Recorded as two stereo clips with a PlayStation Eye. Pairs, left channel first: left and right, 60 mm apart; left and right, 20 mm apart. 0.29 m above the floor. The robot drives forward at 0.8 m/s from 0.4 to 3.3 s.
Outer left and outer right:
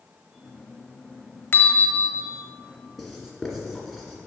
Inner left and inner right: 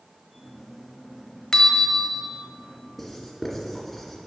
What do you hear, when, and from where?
1.5 s a bell: 40° left (ahead or behind), 0.7 m; by 2.3 s 25° left (ahead or behind), 1.1 m
3.0 s writing: centre (ahead or behind), 1.9 m